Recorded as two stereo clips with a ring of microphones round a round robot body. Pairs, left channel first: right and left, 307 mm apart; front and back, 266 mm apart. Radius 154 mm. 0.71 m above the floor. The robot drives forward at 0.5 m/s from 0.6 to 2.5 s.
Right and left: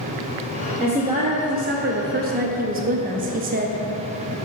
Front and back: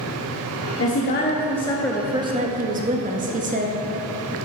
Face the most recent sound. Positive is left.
turn(degrees=135)